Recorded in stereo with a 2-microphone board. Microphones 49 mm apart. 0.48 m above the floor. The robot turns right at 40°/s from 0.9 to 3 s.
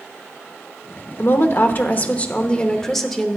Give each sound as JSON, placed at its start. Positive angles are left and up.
{"t": 1.2, "sound": "a woman speaking", "azimuth_deg": 100, "distance_m": 1.0}